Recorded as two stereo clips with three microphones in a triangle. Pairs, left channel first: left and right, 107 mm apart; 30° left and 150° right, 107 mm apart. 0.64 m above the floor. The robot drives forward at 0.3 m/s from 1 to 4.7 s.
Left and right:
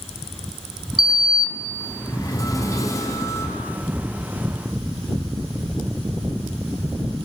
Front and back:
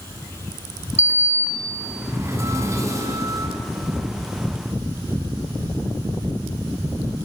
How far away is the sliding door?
About 1.3 m.